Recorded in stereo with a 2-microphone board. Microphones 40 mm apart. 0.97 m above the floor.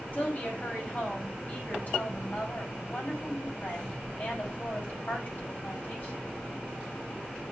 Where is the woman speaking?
45° left (ahead or behind), 5 m.